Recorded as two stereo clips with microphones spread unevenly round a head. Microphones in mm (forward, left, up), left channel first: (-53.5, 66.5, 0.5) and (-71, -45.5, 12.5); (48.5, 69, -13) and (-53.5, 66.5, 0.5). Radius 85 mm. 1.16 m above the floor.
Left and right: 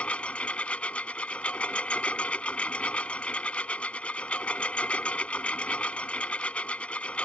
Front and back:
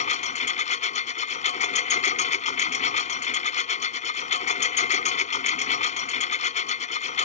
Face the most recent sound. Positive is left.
turn(degrees=-5)